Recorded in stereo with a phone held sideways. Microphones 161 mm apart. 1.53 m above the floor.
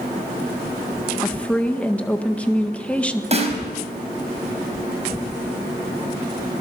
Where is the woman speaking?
10° left (ahead or behind), 1.6 m.